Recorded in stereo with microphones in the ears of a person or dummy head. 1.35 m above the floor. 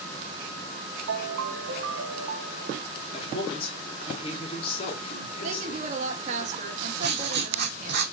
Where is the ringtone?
65° right (ahead or behind), 0.9 m.